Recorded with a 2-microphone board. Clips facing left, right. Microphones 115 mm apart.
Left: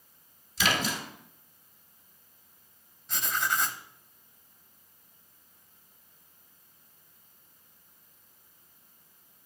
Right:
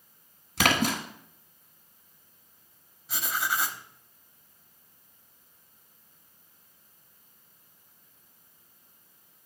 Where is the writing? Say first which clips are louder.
Even; 5° right (ahead or behind), 0.7 m.